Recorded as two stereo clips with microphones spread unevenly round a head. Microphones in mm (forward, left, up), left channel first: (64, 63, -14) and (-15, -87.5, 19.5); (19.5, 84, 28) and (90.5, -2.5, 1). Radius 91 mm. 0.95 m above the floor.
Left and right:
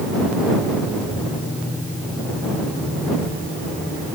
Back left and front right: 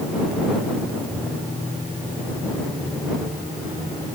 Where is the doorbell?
No doorbell in this recording.